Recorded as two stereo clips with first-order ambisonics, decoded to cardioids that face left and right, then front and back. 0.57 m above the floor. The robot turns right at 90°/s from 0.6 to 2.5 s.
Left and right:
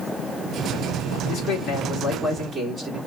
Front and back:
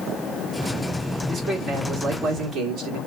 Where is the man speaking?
90° left, 1.5 m; by 3.0 s 160° right, 1.5 m.